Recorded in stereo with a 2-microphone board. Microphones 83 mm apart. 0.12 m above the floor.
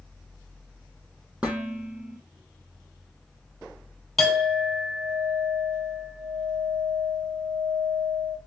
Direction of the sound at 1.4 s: 10° right (ahead or behind).